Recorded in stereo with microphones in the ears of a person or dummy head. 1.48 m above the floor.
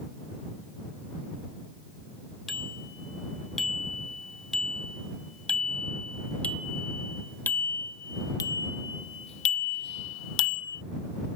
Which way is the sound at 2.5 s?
5° right (ahead or behind).